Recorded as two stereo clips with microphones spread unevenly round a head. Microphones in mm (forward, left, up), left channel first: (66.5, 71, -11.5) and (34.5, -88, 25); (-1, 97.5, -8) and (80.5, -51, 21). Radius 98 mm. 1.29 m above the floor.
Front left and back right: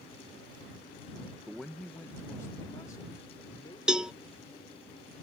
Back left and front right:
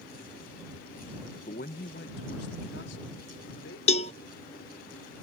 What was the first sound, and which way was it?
A man speaking, 170° left.